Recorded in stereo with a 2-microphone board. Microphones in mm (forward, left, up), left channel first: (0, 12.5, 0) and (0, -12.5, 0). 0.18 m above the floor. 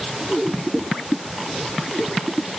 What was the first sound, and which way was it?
Only background noise.